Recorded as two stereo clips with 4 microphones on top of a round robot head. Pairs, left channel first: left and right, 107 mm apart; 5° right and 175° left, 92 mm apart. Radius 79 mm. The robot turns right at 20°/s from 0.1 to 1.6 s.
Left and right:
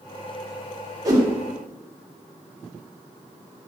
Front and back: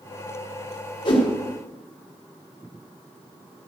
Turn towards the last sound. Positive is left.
turn(degrees=-25)